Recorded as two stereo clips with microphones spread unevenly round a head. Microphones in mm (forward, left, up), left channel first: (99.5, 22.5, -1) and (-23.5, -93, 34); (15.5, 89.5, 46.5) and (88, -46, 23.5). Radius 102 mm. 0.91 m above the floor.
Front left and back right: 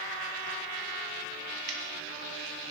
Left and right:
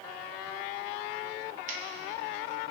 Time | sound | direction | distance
1.7 | scissors | 105° right | 2 m